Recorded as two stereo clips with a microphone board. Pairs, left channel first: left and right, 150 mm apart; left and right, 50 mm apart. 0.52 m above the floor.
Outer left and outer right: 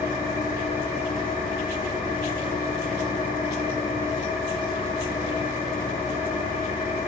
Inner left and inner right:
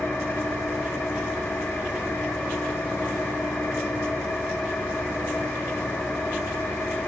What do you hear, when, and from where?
0.0 s an engine running: 60° left (ahead or behind), 7.5 m